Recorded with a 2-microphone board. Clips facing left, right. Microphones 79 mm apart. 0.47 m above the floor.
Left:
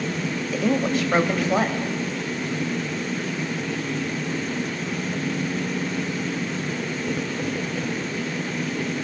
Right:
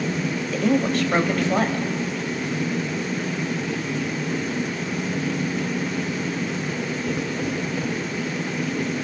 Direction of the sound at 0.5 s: 5° left (ahead or behind).